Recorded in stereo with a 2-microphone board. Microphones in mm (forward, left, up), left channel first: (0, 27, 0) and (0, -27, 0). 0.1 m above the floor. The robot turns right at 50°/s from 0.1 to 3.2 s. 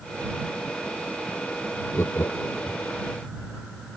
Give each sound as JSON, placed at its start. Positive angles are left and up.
{"t": 1.9, "sound": "laughter", "side_deg": 45}